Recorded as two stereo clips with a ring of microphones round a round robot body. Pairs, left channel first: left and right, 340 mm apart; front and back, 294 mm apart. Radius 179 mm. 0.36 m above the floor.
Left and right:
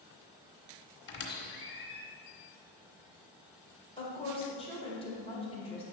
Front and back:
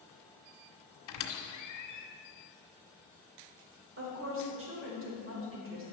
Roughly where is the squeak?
Ahead left.